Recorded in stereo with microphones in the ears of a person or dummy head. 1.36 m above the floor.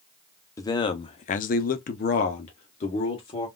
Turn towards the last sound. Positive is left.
turn(degrees=35)  # may be behind; listen again after turning